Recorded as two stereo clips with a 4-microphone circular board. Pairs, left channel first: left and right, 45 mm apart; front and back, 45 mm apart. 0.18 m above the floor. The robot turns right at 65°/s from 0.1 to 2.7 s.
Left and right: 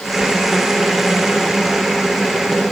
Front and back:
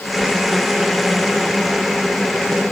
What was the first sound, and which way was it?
Only background noise.